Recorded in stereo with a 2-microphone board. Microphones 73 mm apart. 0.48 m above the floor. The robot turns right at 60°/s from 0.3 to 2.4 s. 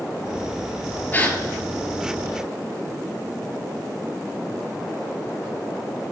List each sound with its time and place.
1.1 s a gasp: 20° left (ahead or behind), 1.6 m; by 1.4 s 5° left (ahead or behind), 1.6 m